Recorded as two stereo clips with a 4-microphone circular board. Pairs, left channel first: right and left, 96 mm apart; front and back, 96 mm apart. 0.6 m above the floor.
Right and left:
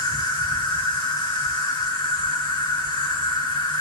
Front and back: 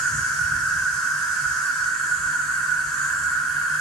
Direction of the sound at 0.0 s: 80° right.